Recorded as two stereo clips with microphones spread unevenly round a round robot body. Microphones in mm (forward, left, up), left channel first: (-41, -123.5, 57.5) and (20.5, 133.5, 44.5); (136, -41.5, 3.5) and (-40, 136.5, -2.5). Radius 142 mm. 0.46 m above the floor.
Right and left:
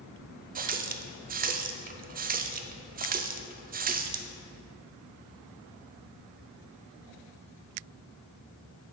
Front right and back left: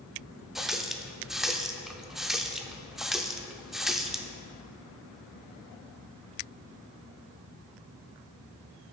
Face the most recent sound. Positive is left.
turn(degrees=50)